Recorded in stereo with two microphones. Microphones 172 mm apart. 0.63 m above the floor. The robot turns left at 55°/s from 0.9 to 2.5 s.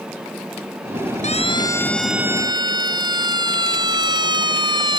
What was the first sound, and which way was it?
A siren, 45° left (ahead or behind).